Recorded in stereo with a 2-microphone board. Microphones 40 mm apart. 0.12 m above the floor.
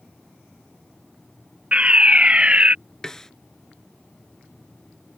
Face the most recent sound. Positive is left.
turn(degrees=15)  # may be behind; listen again after turning